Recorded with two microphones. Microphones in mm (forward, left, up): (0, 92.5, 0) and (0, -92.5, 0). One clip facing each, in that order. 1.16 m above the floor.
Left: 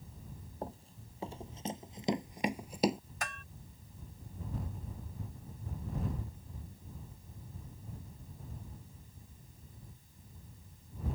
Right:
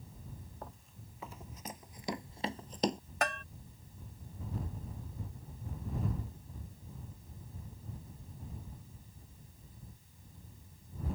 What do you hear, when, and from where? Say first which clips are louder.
0.6 s running footsteps: left 10 dB; 35° left (ahead or behind); by 3.0 s 5° left (ahead or behind)
3.2 s a bell: right 10 dB; 65° right (ahead or behind)